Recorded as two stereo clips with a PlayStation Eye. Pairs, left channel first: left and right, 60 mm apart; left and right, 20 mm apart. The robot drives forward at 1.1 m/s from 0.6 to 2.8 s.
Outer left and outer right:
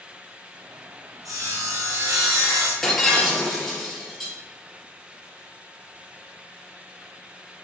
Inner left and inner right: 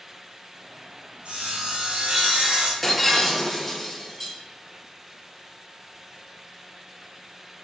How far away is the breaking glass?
About 3 m.